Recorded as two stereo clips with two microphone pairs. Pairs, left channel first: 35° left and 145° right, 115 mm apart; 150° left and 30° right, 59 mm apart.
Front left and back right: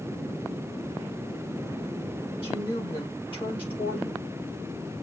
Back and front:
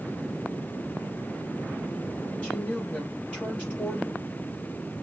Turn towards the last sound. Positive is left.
turn(degrees=80)